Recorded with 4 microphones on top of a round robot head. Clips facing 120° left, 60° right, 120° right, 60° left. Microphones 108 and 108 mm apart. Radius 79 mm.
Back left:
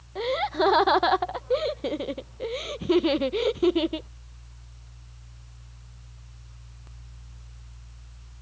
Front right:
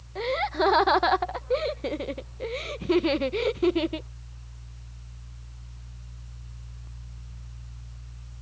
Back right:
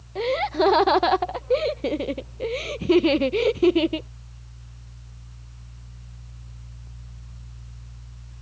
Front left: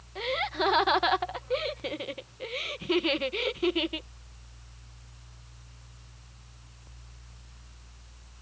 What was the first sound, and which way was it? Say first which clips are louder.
Laughter: back left 1 dB, back right 8 dB; 155° right.